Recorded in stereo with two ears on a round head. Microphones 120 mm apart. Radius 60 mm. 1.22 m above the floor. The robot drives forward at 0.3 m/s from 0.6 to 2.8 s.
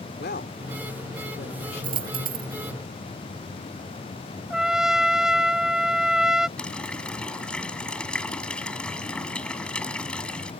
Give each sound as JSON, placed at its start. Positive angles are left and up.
{"t": 0.2, "sound": "a woman speaking", "side_deg": 80}
{"t": 1.8, "sound": "a dropped coin", "side_deg": -40}
{"t": 4.5, "sound": "a trumpet", "side_deg": -5}
{"t": 6.6, "sound": "a running tap", "side_deg": 5}